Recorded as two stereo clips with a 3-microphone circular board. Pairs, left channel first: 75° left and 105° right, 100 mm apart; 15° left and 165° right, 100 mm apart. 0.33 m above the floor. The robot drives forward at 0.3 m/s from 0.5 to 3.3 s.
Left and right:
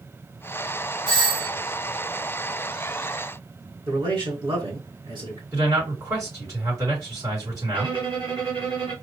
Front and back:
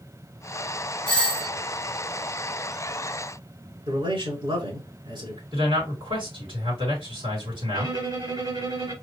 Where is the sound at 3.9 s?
140° right, 3.5 m.